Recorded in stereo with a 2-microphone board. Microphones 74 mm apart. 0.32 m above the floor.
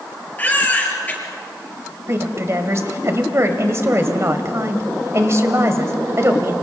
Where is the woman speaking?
40° right (ahead or behind), 1.9 m.